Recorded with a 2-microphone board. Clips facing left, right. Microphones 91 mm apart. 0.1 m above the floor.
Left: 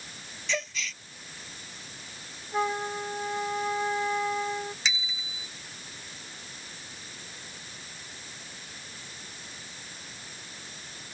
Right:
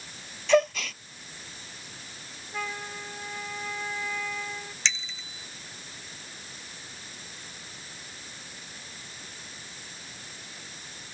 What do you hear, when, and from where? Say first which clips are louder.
0.5 s a gasp: right 12 dB; 55° right (ahead or behind)
2.5 s a flute: left 7 dB; 30° left (ahead or behind)
4.8 s a bicycle bell: even; 5° left (ahead or behind)